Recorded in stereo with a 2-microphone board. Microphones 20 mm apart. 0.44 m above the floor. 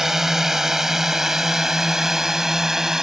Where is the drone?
20° right (ahead or behind); by 3.0 s 25° right (ahead or behind).